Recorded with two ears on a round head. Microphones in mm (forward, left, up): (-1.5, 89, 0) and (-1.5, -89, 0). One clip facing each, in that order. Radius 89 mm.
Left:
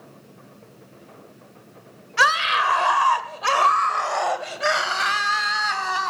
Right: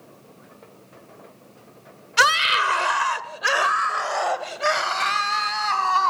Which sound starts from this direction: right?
A scream, at 2.2 s.